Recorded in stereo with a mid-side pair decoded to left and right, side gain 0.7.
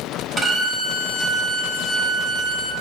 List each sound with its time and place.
0.4 s a violin: 15° right, 0.6 m